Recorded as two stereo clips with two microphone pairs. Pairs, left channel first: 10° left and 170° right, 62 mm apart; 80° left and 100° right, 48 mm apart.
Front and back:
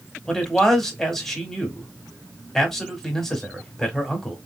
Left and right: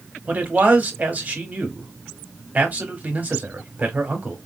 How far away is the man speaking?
About 1.1 m.